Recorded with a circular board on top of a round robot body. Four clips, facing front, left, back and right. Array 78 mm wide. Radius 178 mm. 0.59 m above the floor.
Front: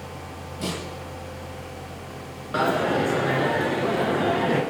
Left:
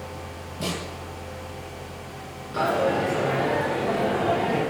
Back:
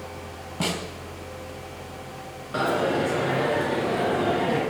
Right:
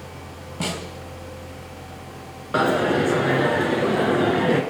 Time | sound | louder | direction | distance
0.6 | a snare drum | right 2 dB, back 2 dB | 145° right | 3.5 m
2.5 | a dropped coin | right 3 dB, front 1 dB | 75° right | 1.7 m